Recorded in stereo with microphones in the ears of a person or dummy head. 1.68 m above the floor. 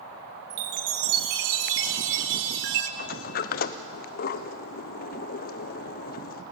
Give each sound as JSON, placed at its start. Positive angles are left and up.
{"t": 0.5, "sound": "a chime", "side_deg": -65, "distance_m": 1.1}
{"t": 3.0, "sound": "a sliding door", "side_deg": 55, "distance_m": 0.7}